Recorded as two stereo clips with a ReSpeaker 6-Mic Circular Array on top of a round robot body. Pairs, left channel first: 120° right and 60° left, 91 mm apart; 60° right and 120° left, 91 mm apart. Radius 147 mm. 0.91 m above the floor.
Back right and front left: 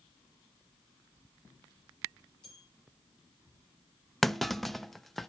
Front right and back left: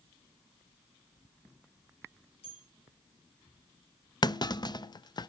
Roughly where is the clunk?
Ahead right.